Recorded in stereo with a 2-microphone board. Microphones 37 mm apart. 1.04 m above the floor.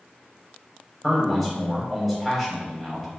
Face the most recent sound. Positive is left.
turn(degrees=10)  # may be behind; listen again after turning